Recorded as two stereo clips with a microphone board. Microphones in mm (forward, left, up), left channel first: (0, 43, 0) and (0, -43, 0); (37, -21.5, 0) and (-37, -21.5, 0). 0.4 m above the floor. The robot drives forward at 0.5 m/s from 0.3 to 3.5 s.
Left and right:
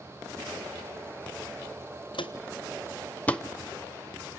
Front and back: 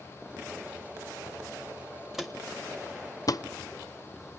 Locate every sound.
2.1 s footsteps: 95° left, 1.3 m; by 3.4 s 5° left, 0.7 m